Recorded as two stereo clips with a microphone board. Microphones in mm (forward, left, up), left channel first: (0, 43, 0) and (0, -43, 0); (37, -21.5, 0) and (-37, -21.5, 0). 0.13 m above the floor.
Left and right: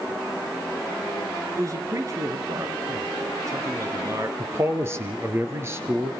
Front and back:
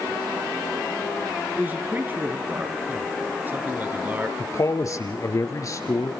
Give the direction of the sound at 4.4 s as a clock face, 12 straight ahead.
1 o'clock.